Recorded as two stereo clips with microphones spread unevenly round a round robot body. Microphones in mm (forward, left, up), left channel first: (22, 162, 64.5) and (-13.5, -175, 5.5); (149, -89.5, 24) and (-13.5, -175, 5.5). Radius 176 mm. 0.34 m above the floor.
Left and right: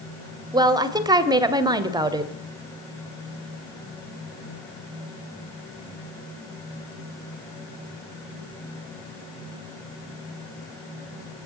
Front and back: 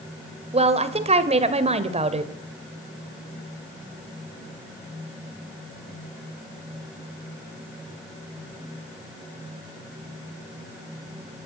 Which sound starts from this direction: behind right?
A woman speaking, at 0.5 s.